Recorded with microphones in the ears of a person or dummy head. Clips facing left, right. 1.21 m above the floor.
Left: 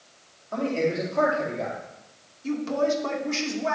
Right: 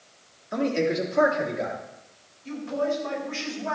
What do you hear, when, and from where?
0.5 s a man speaking: 20° right (ahead or behind), 3.5 m
2.4 s a woman speaking: 85° left, 3 m